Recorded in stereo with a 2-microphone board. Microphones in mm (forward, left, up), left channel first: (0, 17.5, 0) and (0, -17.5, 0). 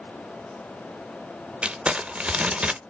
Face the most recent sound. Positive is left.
turn(degrees=-35)  # may be behind; listen again after turning